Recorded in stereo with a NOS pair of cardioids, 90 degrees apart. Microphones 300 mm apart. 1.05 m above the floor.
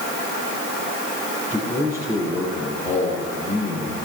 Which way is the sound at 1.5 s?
10° right.